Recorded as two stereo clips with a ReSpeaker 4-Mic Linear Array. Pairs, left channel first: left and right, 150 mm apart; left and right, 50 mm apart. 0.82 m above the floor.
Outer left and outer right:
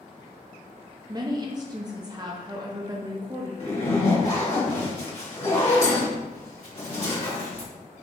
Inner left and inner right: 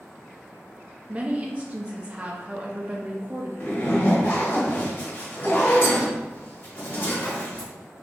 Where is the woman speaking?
25° right (ahead or behind), 0.7 m.